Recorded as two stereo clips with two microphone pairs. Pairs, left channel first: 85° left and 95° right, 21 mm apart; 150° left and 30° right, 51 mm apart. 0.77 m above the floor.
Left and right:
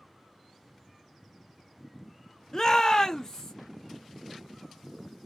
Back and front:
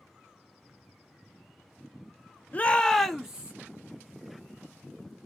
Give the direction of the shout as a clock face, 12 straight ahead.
8 o'clock.